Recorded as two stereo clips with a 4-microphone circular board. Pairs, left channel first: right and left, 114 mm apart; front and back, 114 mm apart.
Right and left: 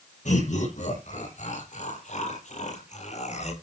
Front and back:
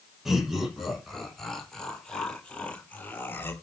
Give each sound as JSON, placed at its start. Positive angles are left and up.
{"t": 0.2, "sound": "laughter", "azimuth_deg": -95, "distance_m": 9.0}